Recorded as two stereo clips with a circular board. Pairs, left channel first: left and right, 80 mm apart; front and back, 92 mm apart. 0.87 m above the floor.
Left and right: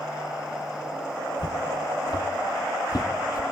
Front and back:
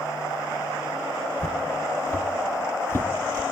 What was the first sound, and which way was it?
Footsteps, 50° left.